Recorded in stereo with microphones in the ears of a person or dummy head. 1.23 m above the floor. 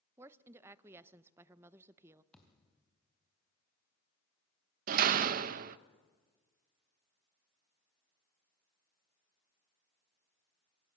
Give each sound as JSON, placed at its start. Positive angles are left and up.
{"t": 0.2, "sound": "a woman speaking", "side_deg": -15, "distance_m": 0.6}
{"t": 2.3, "sound": "a thud", "side_deg": 5, "distance_m": 3.0}
{"t": 4.9, "sound": "a door slam", "side_deg": -50, "distance_m": 0.7}